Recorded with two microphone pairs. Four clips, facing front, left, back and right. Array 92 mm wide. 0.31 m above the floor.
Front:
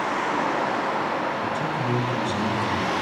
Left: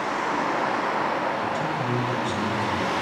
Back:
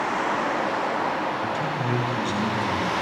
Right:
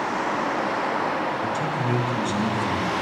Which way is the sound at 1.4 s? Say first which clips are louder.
Right 1 dB, front 1 dB; 145° left.